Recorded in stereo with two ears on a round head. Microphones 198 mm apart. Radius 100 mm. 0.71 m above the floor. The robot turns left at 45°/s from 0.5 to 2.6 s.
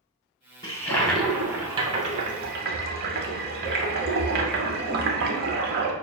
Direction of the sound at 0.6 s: 25° left.